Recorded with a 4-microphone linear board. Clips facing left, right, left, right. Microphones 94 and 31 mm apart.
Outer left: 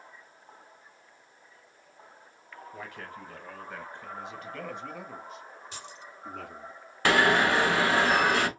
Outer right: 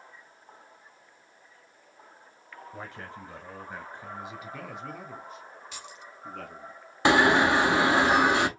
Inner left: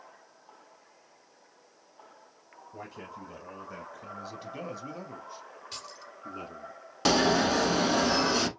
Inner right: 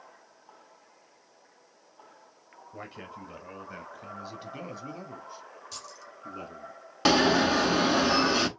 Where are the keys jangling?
35° left (ahead or behind), 1.6 m.